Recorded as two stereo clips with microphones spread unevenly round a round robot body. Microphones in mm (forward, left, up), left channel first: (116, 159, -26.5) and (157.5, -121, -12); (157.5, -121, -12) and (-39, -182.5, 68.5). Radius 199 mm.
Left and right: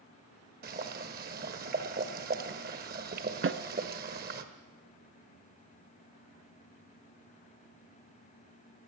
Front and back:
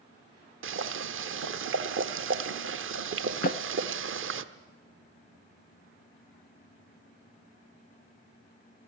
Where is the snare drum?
35° right, 0.9 m.